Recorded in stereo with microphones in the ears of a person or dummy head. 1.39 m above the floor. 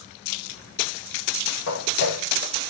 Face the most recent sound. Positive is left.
turn(degrees=65)  # may be behind; listen again after turning